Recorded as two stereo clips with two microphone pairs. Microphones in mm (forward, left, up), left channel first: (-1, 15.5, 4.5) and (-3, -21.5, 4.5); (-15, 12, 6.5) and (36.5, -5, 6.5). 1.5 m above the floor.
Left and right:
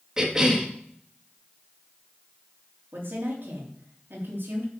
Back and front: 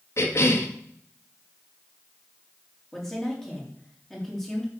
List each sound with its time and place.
0.2 s a cough: 165° right, 2.0 m
2.9 s a woman speaking: 115° right, 3.5 m